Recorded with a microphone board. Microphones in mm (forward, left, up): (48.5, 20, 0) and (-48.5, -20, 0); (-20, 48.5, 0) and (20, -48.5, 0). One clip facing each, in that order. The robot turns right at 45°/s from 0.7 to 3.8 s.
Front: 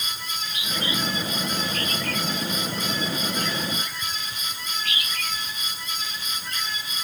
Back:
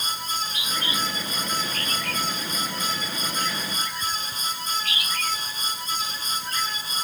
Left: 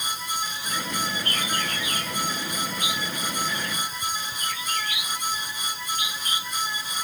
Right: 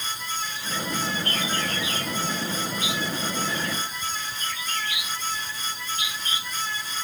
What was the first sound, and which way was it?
Only background noise.